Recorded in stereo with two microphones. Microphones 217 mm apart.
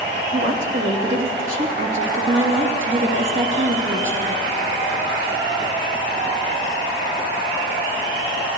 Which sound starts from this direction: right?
A woman speaking, at 0.3 s.